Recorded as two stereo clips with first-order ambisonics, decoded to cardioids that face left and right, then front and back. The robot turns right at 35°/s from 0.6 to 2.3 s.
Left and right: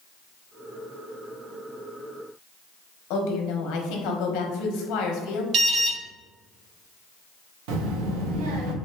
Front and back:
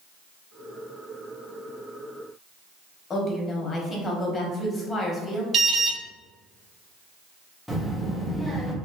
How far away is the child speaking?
About 0.7 m.